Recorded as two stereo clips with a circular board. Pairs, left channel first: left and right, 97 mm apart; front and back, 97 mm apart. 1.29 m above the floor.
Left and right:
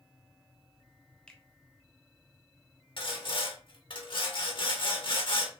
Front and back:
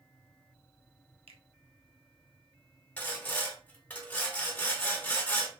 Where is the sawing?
70° left, 1.2 m.